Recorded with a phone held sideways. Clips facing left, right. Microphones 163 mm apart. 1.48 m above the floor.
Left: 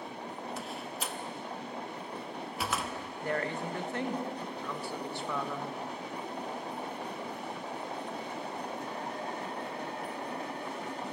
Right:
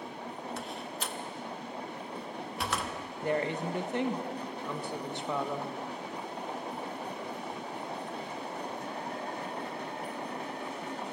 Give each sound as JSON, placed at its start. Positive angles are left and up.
{"t": 0.6, "sound": "a door slam", "side_deg": 5, "distance_m": 1.2}
{"t": 3.2, "sound": "a woman speaking", "side_deg": -20, "distance_m": 1.4}